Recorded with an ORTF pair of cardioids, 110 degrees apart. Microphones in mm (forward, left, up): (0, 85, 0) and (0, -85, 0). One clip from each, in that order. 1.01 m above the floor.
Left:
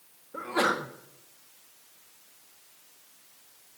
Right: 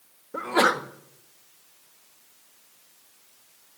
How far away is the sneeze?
About 1.6 m.